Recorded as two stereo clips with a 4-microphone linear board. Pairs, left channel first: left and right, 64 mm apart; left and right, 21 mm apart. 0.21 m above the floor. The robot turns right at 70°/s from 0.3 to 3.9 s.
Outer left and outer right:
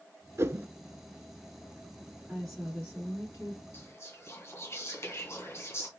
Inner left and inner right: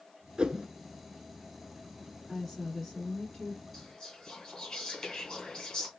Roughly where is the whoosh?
Right.